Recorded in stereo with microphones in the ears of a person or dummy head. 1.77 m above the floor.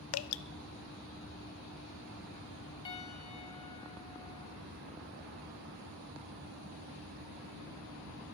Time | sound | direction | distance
0.1 | dripping | 85° left | 0.7 m
2.9 | a piano | 25° left (ahead or behind) | 1.9 m